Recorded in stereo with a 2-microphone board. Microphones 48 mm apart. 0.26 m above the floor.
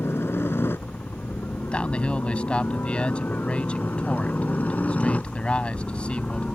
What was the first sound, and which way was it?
A helicopter, 55° left (ahead or behind).